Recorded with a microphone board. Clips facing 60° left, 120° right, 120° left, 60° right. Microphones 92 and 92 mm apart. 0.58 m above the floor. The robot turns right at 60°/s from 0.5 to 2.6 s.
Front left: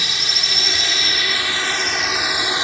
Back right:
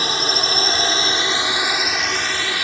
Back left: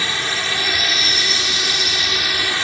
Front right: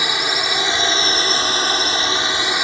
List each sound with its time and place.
0.0 s a drone: 120° right; by 2.6 s 5° left